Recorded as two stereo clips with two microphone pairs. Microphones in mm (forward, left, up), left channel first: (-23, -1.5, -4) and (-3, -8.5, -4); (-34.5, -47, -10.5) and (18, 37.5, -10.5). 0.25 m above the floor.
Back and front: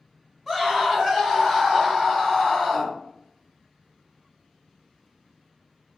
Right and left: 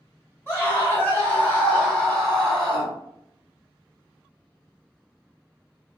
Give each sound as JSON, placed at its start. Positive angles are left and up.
{"t": 0.5, "sound": "a scream", "azimuth_deg": -95, "distance_m": 1.5}